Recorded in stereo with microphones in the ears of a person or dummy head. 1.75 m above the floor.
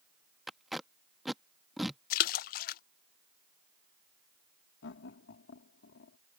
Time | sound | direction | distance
0.5 | tape being pulled | centre (ahead or behind) | ?
2.1 | a splash | 55° left (ahead or behind) | ?
4.8 | laughter | 80° left | ?